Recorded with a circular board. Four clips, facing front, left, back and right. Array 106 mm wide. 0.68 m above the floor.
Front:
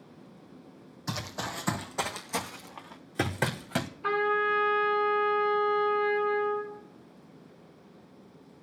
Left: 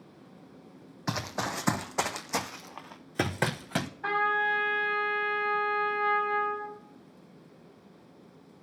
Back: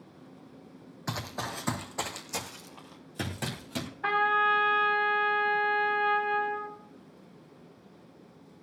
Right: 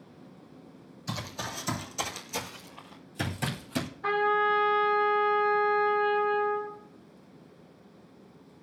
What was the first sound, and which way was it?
Running footsteps, 110° left.